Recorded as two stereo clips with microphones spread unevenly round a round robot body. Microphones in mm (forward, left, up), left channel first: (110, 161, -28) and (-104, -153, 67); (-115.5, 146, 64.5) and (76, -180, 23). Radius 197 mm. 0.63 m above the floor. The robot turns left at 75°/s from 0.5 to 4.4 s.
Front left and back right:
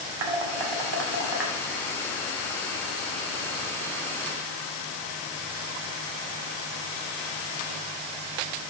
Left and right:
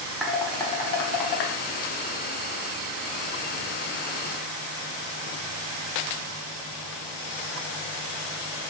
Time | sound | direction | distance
0.2 | dishes clattering | 145° right | 1.4 m